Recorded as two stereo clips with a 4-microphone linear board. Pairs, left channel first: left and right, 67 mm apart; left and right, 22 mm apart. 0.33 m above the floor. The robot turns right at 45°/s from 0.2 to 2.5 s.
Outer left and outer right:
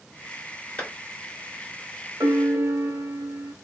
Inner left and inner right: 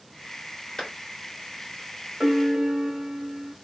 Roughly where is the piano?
Right.